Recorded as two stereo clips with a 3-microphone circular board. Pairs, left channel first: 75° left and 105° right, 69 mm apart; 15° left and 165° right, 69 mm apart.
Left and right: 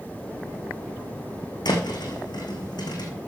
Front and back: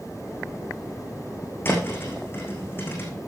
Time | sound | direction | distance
1.6 | a thud | 70° left | 3 m